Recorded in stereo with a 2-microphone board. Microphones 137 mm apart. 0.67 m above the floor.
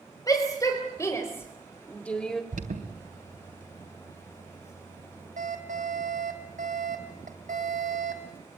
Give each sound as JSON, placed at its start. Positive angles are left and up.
{"t": 0.3, "sound": "a shout", "side_deg": 25, "distance_m": 4.0}
{"t": 2.5, "sound": "an alarm", "side_deg": -80, "distance_m": 3.5}